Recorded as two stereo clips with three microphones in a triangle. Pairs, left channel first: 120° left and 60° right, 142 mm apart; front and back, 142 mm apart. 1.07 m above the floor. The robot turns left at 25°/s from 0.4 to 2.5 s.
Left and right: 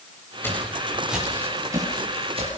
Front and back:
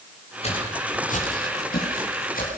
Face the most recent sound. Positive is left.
turn(degrees=-15)